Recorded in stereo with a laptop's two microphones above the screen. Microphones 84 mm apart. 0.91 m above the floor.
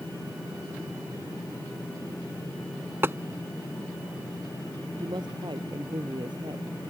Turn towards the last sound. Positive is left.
turn(degrees=-65)  # may be behind; listen again after turning